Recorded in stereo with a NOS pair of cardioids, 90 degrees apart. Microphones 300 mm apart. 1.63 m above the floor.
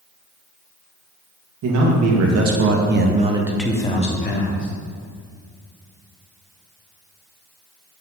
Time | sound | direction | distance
1.6 | a man speaking | 70° right | 2.5 m